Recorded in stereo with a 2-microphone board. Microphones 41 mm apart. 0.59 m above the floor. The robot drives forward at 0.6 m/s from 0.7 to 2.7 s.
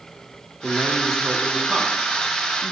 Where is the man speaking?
15° right (ahead or behind), 1.5 m; by 2.7 s 20° right (ahead or behind), 1.2 m.